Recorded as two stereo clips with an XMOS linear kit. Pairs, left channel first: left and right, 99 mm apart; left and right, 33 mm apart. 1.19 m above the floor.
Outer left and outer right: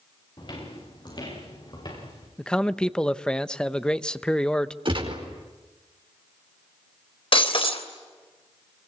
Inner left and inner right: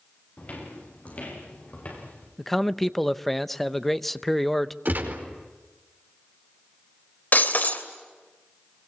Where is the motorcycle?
No motorcycle in this recording.